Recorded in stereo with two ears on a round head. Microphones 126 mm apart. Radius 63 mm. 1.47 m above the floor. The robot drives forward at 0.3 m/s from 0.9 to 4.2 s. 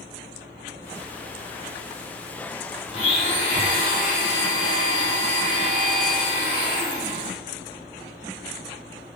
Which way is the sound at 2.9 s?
45° left (ahead or behind).